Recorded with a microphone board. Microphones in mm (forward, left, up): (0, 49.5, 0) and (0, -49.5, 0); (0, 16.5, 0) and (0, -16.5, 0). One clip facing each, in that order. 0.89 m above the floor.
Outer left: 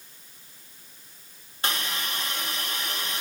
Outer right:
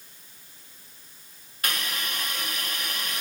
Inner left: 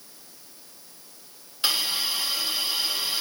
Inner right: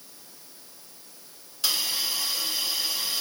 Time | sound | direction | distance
1.6 | a hiss | 30° left (ahead or behind) | 0.5 m